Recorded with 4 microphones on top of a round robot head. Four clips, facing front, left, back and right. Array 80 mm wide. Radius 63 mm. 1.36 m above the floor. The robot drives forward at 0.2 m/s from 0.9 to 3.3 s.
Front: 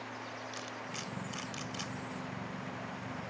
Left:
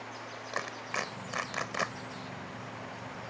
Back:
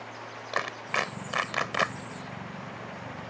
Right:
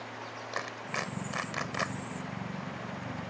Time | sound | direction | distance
0.5 | a clap | straight behind | ?